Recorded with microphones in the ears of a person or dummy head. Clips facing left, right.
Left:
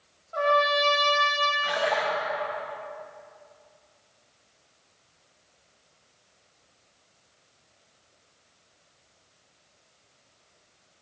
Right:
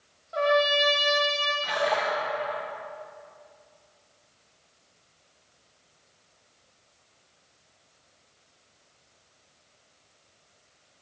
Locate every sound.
0.3 s a trumpet: 30° right (ahead or behind), 1.6 m
1.6 s a splash: centre (ahead or behind), 0.8 m